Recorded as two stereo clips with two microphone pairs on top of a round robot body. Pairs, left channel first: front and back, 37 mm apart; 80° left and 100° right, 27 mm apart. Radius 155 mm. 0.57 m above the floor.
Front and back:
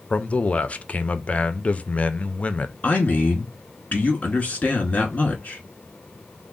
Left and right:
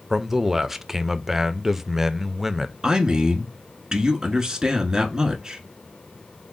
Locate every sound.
0.1 s a man speaking: 40° right, 0.7 m
2.8 s a man speaking: 55° right, 1.3 m